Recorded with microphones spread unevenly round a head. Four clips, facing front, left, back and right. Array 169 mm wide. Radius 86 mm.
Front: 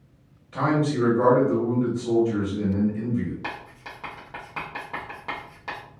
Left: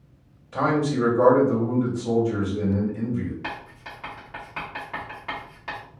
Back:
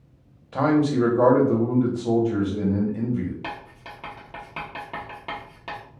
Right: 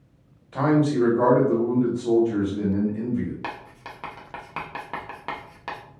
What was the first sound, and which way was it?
A man speaking, 175° left.